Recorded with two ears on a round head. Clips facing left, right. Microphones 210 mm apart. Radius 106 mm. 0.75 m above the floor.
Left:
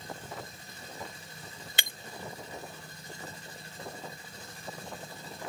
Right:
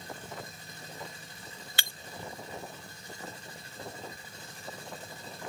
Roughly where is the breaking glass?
Centre.